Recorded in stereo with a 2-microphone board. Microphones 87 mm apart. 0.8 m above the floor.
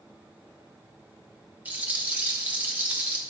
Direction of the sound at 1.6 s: 20° right (ahead or behind).